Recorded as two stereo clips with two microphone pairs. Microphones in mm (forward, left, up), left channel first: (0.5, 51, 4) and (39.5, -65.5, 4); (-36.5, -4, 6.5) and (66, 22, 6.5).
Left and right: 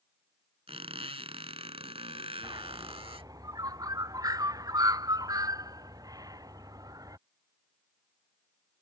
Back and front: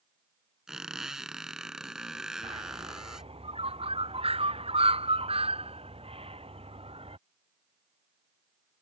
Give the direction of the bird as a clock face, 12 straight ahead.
12 o'clock.